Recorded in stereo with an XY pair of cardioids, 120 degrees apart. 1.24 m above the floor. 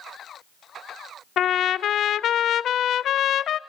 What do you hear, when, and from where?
1.4 s a trumpet: 55° left, 0.5 m